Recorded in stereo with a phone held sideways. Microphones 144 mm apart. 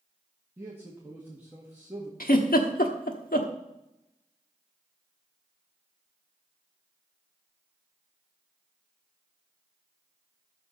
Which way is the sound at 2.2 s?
85° left.